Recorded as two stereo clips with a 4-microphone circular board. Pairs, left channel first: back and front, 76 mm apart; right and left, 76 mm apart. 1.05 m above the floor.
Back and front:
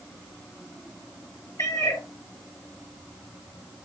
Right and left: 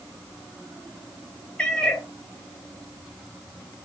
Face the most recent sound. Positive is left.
turn(degrees=-165)